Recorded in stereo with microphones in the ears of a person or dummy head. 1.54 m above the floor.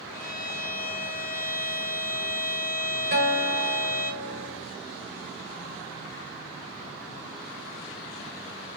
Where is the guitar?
35° right (ahead or behind), 1.1 m.